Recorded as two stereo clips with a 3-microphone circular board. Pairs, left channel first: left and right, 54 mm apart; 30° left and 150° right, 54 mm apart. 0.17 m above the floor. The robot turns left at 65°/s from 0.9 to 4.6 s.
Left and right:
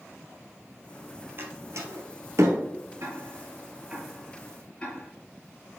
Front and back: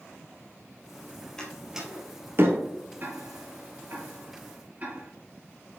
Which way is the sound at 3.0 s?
100° right.